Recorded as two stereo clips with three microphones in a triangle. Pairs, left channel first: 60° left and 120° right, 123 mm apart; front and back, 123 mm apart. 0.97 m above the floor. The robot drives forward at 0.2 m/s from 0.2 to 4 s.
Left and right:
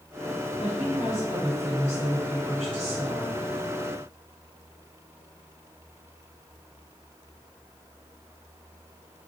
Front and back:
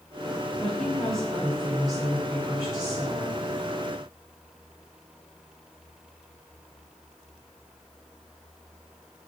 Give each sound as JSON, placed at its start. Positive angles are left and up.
{"t": 0.6, "sound": "a woman speaking", "azimuth_deg": 80, "distance_m": 1.3}